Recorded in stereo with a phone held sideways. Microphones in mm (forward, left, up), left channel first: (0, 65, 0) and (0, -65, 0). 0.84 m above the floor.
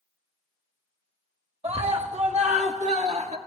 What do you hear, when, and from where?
1.6 s a scream: 55° right (ahead or behind), 1.9 m